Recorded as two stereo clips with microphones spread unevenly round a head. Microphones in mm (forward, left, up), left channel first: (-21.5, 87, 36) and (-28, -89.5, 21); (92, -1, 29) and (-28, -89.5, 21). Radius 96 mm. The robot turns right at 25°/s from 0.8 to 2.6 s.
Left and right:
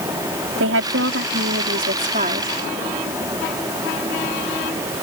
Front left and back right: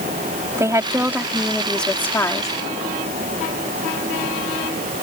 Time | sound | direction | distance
0.6 | a woman speaking | 70° right | ?